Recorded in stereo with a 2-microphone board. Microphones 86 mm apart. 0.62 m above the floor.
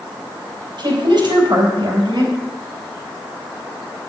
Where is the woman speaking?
55° right (ahead or behind), 4 m.